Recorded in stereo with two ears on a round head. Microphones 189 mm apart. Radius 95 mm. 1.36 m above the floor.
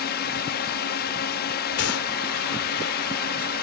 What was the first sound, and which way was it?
A drone, 50° left (ahead or behind).